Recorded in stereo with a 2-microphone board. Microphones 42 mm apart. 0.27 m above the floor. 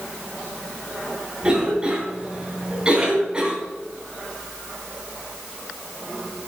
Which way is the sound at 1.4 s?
20° right (ahead or behind).